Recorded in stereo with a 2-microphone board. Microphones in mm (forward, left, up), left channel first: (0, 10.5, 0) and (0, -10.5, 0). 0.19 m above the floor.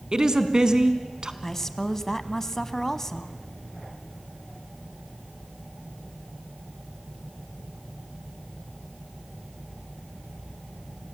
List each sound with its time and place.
0.1 s a woman speaking: 35° right (ahead or behind), 1.6 m
1.4 s a woman speaking: 20° left (ahead or behind), 1.2 m